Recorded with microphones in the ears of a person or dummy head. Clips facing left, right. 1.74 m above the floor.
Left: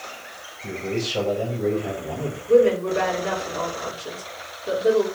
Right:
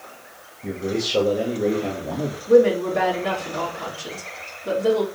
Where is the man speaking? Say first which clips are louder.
Right 2 dB; 75° right (ahead or behind), 3 m; by 2.4 s 60° right (ahead or behind), 2.5 m.